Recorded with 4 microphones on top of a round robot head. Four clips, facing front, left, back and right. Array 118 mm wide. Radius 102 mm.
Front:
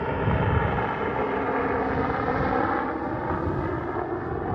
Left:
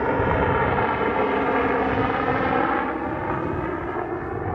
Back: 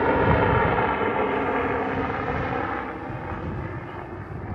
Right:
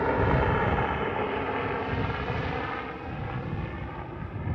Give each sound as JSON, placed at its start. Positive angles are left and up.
{"t": 0.0, "sound": "a helicopter", "azimuth_deg": 155}